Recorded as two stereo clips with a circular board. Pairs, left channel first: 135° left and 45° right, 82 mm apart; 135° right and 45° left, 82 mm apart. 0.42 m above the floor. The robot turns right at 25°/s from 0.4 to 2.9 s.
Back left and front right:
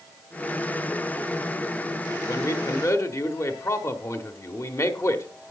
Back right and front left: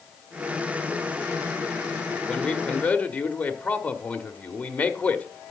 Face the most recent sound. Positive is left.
turn(degrees=165)